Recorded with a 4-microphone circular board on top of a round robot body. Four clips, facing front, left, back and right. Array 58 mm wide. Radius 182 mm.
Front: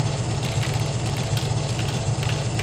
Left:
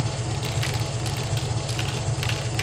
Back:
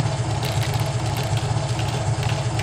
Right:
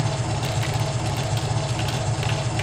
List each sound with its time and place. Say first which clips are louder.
0.0 s an engine running: right 3 dB, back 1 dB; 155° right, 0.9 m